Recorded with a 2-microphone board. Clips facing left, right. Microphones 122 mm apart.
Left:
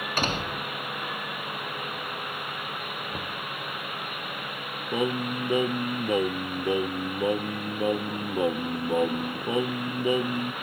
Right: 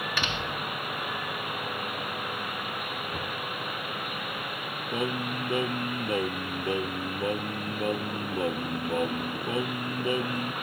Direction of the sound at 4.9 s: 20° left (ahead or behind).